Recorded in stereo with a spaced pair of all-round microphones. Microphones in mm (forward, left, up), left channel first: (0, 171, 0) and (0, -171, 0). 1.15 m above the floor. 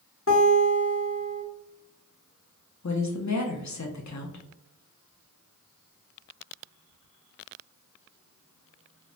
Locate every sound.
0.3 s a guitar: 40° left (ahead or behind), 0.9 m
2.8 s a woman speaking: 55° left (ahead or behind), 0.6 m